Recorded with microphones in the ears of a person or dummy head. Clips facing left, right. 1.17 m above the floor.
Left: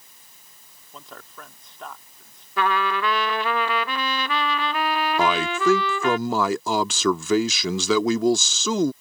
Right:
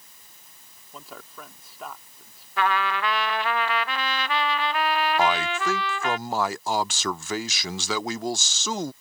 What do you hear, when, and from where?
0.9 s a man speaking: 5° right (ahead or behind)
2.6 s a trumpet: 70° left (ahead or behind)
5.2 s a man speaking: 70° left (ahead or behind)